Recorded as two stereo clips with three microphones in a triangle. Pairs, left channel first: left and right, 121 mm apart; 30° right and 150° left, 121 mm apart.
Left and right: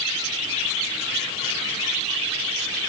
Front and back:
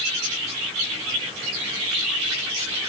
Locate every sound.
Only background noise.